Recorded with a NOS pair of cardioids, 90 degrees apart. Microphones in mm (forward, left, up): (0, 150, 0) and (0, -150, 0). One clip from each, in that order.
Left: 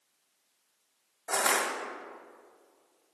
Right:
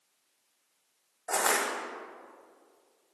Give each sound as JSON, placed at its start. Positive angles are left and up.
{"t": 1.3, "sound": "crushing", "azimuth_deg": 10, "distance_m": 1.8}